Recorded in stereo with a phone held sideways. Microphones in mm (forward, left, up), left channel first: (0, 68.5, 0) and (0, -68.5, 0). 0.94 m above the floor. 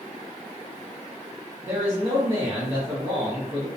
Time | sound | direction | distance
1.6 | a man speaking | 20° right (ahead or behind) | 0.7 m